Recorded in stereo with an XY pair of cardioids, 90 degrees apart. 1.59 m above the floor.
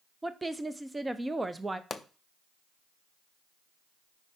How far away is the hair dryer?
I don't hear a hair dryer.